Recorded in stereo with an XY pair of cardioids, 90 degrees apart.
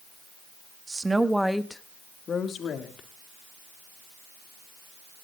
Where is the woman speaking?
30° right, 1.7 m; by 3.1 s 75° left, 2.5 m.